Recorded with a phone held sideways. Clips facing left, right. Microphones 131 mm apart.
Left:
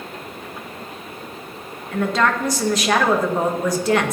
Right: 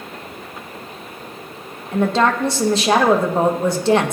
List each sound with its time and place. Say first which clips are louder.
1.9 s a woman speaking: right 3 dB; 25° right (ahead or behind), 1.2 m